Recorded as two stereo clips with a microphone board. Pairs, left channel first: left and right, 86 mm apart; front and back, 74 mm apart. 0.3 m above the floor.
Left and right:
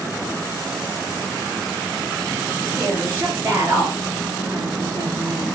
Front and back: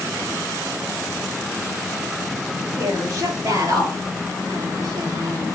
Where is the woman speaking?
150° right, 5 m.